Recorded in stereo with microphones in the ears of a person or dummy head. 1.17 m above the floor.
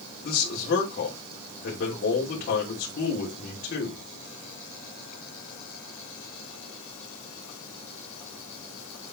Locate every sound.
0.2 s a man speaking: 50° left (ahead or behind), 3 m